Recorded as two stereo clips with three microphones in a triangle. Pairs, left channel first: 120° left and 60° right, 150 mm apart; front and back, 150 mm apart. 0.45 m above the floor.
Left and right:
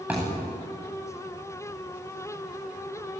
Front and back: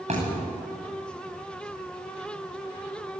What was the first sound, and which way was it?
A thud, 140° right.